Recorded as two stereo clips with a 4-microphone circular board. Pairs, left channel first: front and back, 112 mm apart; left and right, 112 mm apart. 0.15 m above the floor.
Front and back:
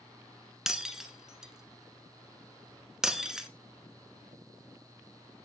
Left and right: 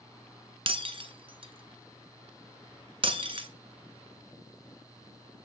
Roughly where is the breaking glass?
Right.